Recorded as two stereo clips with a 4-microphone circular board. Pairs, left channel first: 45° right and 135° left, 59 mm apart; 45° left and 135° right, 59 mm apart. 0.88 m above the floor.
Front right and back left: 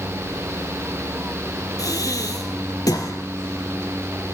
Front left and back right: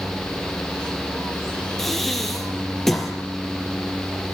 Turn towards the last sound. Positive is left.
turn(degrees=-40)